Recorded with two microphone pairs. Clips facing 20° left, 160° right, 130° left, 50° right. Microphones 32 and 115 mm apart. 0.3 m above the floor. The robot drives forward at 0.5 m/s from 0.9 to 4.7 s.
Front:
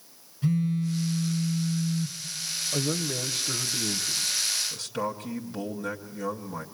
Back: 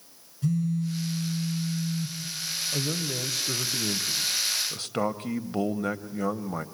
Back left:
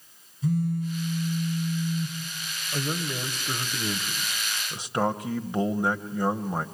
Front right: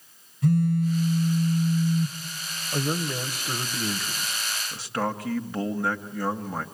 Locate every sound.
0.4 s a phone buzzing: 45° right, 2.5 m; by 2.2 s 55° right, 2.5 m
2.7 s a man speaking: 10° right, 0.9 m; by 6.7 s 175° right, 1.0 m